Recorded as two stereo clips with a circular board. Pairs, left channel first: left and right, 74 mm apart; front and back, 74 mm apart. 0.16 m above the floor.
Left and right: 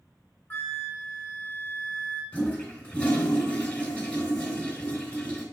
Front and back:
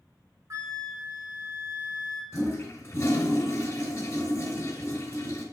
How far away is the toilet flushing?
About 1.9 m.